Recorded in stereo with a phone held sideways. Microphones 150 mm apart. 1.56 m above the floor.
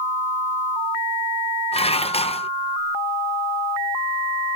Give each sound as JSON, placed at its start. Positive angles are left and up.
{"t": 1.7, "sound": "dishes clattering", "side_deg": 40}